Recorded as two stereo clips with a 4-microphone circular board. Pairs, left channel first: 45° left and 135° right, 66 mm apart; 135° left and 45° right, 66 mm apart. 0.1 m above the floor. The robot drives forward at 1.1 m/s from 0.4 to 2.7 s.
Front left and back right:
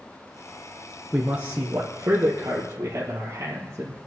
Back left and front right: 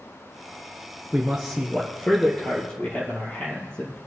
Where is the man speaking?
85° right, 1.2 m; by 4.0 s 160° right, 2 m.